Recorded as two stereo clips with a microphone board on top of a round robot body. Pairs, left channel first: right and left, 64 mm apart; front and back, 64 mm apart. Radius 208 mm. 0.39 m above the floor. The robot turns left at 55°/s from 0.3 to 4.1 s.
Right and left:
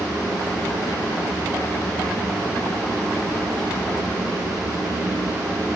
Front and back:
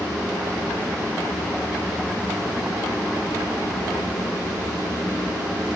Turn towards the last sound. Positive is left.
No sound to turn to.